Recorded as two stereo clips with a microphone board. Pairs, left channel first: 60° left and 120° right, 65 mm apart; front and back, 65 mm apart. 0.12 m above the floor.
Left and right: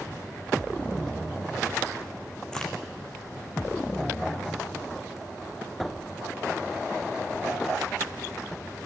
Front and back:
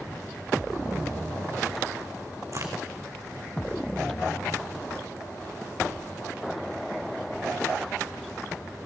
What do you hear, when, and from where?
2.5 s a crack: 140° left, 1.9 m